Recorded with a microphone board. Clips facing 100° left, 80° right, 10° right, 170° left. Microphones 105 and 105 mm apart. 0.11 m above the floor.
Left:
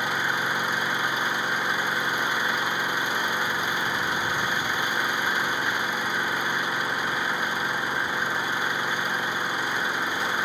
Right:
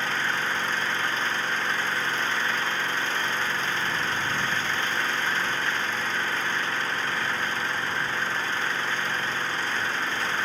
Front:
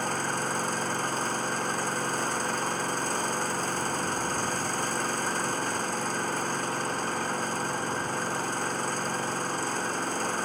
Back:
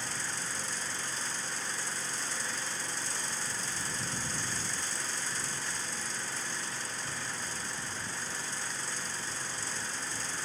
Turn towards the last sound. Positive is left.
turn(degrees=25)